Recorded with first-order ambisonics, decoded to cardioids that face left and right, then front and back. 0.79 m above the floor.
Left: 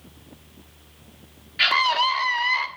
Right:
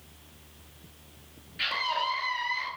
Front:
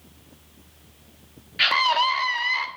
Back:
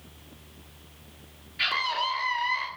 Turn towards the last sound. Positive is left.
turn(degrees=35)